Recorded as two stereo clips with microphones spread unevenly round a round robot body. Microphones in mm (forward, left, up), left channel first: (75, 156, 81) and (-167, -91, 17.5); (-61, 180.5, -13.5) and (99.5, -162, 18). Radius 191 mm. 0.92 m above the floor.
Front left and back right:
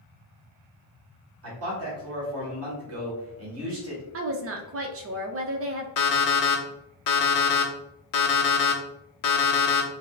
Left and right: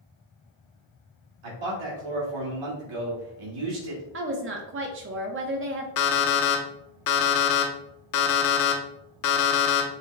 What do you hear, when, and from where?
1.4 s a man speaking: 90° right, 2.0 m
4.1 s a woman speaking: 120° right, 0.7 m
6.0 s an alarm clock: 75° left, 0.8 m